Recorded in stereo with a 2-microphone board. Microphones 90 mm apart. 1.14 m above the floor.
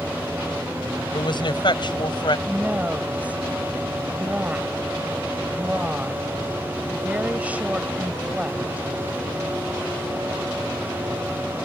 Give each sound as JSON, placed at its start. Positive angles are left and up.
{"t": 1.1, "sound": "a woman speaking", "side_deg": 60}
{"t": 2.5, "sound": "a woman speaking", "side_deg": -15}